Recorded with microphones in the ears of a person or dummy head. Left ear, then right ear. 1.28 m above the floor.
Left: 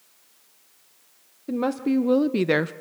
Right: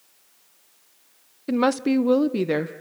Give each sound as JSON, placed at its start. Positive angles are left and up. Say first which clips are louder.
{"t": 1.5, "sound": "a woman speaking", "louder": "right 4 dB", "side_deg": -40, "distance_m": 0.7}